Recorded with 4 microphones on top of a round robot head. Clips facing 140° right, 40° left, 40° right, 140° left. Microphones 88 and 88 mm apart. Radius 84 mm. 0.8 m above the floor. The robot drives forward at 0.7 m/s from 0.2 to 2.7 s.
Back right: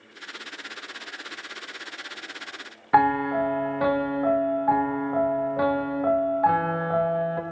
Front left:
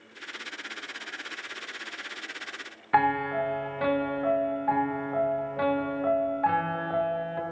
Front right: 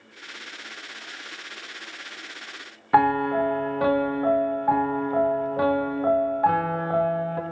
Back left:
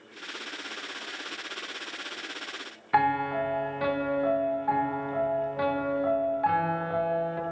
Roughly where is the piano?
Right.